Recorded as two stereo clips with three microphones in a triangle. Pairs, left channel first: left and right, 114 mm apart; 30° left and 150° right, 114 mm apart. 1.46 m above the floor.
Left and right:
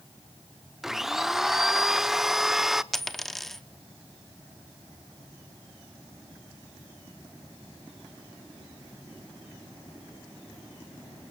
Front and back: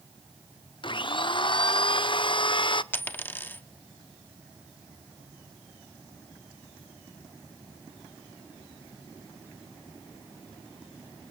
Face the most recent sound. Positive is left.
turn(degrees=10)